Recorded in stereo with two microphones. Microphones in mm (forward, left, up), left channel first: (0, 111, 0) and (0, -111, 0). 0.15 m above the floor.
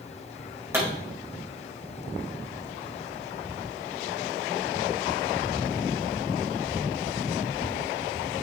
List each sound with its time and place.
0.7 s a pop: 10° right (ahead or behind), 4.5 m